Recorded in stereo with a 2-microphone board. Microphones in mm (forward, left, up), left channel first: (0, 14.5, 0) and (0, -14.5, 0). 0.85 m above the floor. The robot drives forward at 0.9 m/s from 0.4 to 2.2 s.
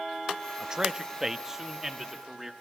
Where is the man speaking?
25° right (ahead or behind), 0.8 m; by 2.5 s 10° right (ahead or behind), 1.9 m.